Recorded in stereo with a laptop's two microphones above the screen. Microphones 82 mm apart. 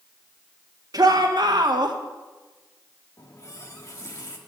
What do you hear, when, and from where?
0.9 s a shout: 50° right (ahead or behind), 1.3 m; by 2.0 s 60° right (ahead or behind), 1.4 m
3.2 s a running tap: 40° left (ahead or behind), 1.6 m